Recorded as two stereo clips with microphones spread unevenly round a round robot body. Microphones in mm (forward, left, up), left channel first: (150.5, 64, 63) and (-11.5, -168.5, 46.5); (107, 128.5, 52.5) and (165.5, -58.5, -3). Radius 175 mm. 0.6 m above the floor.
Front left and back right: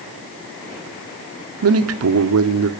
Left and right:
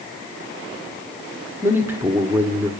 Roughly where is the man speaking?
Behind right.